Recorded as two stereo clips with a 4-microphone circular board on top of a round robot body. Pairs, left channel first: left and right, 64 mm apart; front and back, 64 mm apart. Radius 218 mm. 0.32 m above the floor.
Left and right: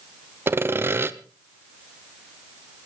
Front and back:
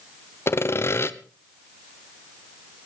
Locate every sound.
0.5 s sawing: 45° right, 1.2 m